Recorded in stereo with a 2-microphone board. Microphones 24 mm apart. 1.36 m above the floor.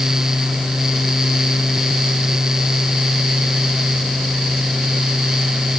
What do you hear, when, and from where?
Only background noise.